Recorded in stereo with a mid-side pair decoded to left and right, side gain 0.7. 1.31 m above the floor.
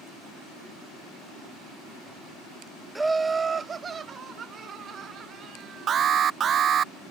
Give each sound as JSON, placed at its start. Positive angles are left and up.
{"t": 3.0, "sound": "laughter", "azimuth_deg": -10}
{"t": 5.9, "sound": "an alarm", "azimuth_deg": -35}